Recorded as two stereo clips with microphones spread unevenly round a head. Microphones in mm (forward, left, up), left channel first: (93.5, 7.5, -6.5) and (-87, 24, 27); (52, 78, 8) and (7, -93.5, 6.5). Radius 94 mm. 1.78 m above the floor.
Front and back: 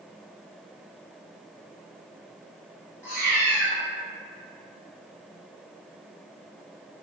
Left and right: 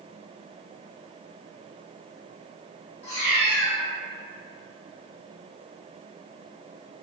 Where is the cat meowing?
70° left, 1.1 m.